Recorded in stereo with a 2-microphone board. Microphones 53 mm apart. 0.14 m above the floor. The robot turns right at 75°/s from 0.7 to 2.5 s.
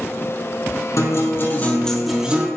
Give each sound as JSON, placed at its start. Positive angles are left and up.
{"t": 1.0, "sound": "a guitar", "azimuth_deg": 100, "distance_m": 4.0}